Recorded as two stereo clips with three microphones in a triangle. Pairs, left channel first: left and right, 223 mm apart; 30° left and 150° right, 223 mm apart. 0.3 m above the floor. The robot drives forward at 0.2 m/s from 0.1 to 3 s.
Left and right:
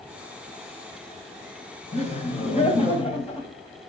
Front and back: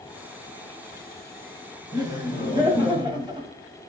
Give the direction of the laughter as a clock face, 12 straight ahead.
7 o'clock.